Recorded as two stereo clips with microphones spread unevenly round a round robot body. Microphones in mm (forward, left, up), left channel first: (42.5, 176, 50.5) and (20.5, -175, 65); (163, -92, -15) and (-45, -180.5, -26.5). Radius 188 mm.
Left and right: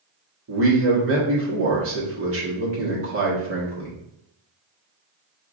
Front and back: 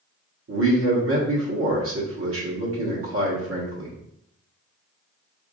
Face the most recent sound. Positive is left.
turn(degrees=-145)